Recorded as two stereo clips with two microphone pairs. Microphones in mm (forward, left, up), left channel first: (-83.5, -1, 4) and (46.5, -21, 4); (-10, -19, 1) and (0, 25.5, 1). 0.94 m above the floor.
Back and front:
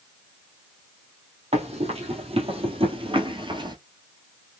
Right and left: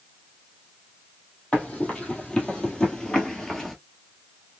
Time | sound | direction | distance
1.5 | running footsteps | 40° right | 2 m